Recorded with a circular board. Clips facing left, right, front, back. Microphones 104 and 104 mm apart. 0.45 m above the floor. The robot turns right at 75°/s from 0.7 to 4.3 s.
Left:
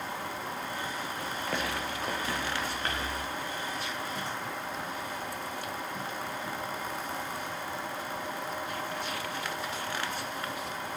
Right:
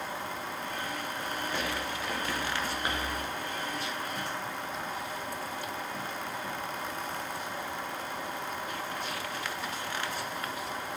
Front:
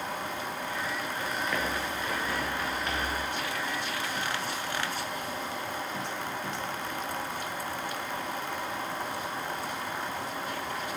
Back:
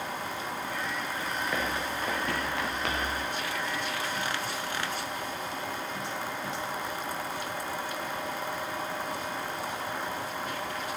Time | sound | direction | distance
1.2 | running footsteps | 75° left | 5 m